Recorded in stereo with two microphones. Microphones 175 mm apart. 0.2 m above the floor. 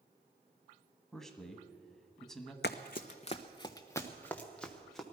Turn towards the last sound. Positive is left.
turn(degrees=0)  # may be behind; listen again after turning